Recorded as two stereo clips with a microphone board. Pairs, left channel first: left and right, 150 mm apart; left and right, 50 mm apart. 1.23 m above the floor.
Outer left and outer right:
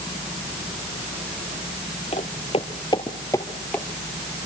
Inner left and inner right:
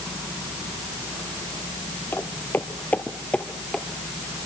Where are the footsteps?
45° left (ahead or behind), 1.7 m; by 3.9 s 10° left (ahead or behind), 2 m.